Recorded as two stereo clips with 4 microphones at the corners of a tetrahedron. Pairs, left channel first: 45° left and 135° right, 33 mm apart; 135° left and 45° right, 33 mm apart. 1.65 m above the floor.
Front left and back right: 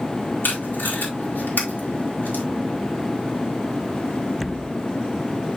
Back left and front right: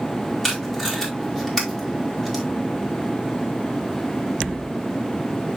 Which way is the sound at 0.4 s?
55° left.